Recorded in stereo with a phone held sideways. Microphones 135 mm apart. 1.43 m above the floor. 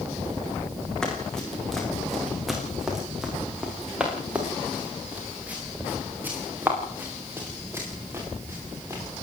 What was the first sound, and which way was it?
Running footsteps, 5° left (ahead or behind).